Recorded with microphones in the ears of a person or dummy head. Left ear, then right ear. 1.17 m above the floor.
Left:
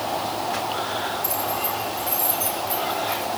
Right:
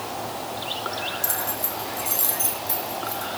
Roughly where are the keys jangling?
Right.